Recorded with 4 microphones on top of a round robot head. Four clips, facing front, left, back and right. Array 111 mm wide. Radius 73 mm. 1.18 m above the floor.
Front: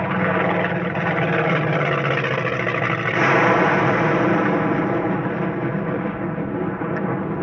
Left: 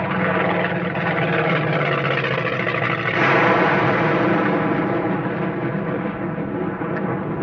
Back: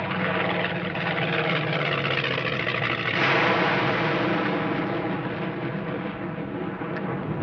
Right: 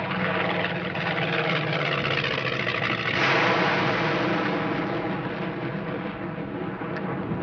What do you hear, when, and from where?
0.0 s an aircraft: 50° left